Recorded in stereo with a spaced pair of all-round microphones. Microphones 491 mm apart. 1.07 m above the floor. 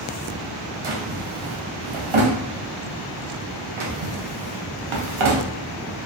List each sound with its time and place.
0.8 s a drawer: 75° right (ahead or behind), 0.5 m